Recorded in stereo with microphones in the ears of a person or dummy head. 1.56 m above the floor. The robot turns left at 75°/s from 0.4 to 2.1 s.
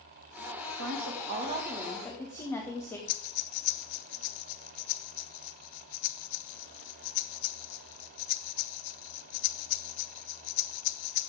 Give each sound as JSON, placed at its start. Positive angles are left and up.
{"t": 0.8, "sound": "a woman speaking", "azimuth_deg": -95, "distance_m": 1.7}
{"t": 3.1, "sound": "breathing", "side_deg": 65, "distance_m": 0.8}